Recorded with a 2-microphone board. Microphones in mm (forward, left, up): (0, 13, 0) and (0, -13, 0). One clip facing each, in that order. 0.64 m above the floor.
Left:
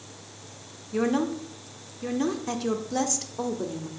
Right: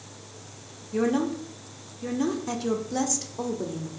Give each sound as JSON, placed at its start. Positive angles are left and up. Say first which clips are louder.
{"t": 0.9, "sound": "a woman speaking", "louder": "even", "side_deg": 10, "distance_m": 1.3}